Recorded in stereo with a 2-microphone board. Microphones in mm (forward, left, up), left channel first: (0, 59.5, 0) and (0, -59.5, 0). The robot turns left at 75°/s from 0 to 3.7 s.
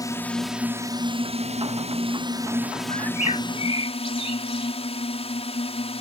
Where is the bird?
65° left (ahead or behind); by 4.7 s 55° left (ahead or behind).